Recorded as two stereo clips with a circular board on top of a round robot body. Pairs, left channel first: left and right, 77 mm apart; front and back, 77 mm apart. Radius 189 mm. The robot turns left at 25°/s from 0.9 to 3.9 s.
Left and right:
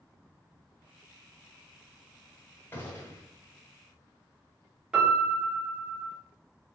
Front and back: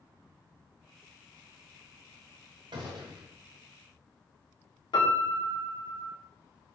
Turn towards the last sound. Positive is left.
turn(degrees=-10)